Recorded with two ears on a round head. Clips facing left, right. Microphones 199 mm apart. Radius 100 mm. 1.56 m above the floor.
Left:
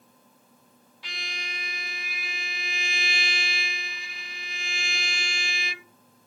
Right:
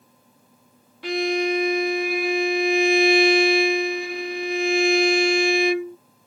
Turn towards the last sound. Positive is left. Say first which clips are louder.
# right 24 dB
turn(degrees=-45)  # may be behind; listen again after turning